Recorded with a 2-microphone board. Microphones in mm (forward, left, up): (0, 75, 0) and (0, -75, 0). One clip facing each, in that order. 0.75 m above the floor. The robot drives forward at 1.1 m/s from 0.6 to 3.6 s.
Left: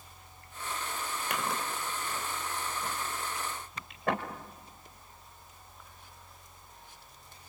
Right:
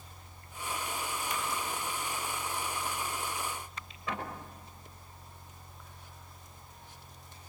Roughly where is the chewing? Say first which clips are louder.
Left 4 dB; left.